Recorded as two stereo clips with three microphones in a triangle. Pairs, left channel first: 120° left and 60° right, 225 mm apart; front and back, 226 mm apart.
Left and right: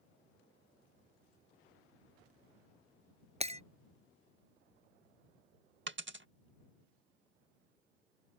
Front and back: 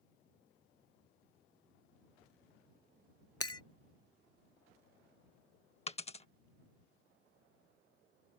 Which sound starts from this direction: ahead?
Breaking glass, at 3.4 s.